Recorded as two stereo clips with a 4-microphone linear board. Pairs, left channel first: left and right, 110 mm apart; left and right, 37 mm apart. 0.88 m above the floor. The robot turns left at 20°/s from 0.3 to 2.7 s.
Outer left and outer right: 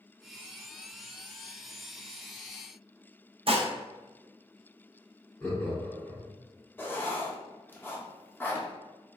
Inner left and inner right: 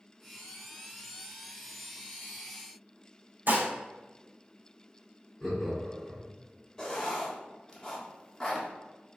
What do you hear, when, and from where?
3.5 s dishes clattering: 55° right (ahead or behind), 0.6 m
5.4 s laughter: 15° left (ahead or behind), 1.6 m
6.8 s writing: 20° left (ahead or behind), 0.6 m